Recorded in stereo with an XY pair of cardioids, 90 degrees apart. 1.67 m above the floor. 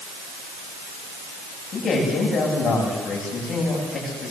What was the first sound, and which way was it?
A man speaking, 55° left.